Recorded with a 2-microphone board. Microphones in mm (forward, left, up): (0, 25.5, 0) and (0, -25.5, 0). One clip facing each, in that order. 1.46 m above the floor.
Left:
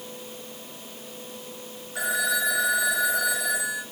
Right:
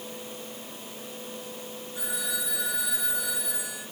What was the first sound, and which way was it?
A phone ringing, 80° left.